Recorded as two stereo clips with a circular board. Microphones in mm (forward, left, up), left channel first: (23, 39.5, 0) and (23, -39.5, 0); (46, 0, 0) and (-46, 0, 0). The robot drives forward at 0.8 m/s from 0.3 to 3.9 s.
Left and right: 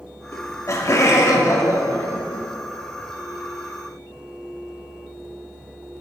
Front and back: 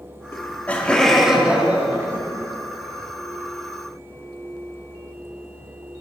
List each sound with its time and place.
0.3 s laughter: 55° left, 1.6 m; by 2.5 s 135° left, 1.8 m